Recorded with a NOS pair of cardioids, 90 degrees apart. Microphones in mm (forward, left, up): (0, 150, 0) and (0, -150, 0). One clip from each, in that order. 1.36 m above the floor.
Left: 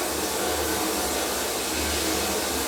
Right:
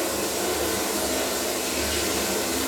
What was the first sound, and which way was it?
Running water, 10° right.